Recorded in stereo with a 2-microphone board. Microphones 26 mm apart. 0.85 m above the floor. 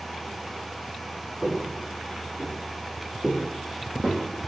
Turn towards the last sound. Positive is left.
turn(degrees=-45)  # may be behind; listen again after turning